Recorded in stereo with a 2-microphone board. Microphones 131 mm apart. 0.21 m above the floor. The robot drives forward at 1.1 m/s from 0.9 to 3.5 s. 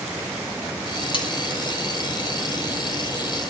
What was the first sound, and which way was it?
Cutlery clinking, 40° left (ahead or behind).